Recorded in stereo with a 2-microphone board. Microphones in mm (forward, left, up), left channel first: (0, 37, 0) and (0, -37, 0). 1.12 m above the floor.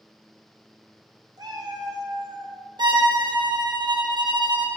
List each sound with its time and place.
1.4 s a cat meowing: 60° right (ahead or behind), 0.8 m; by 2.5 s 55° right (ahead or behind), 1.0 m
2.8 s a violin: 80° right, 0.7 m